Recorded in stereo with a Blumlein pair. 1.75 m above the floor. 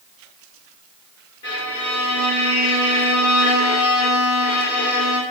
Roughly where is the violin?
Ahead left.